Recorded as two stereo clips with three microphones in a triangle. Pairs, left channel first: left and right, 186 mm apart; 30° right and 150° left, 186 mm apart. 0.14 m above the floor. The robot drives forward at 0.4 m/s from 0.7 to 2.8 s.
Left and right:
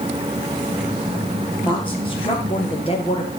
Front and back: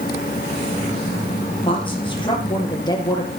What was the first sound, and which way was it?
A woman speaking, 30° left.